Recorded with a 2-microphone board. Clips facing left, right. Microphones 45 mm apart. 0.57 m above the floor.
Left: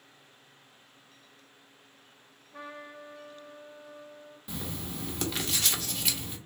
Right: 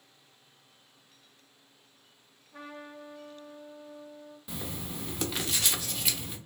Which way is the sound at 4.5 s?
5° right (ahead or behind).